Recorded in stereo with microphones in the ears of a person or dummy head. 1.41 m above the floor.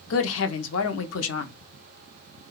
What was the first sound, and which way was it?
A woman speaking, 70° left (ahead or behind).